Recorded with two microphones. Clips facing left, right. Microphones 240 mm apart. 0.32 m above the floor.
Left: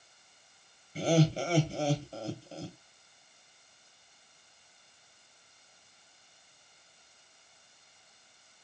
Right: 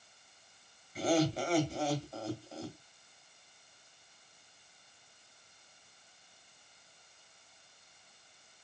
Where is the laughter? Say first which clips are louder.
Left 2 dB; 30° left (ahead or behind), 2.0 m.